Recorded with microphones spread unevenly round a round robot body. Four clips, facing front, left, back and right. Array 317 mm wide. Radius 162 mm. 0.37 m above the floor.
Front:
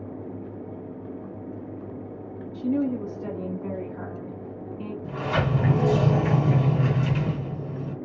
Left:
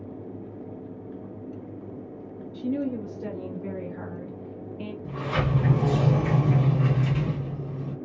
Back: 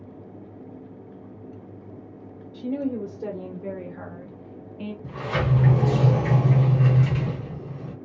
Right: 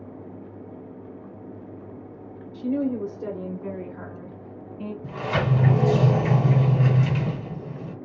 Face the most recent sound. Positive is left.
turn(degrees=-95)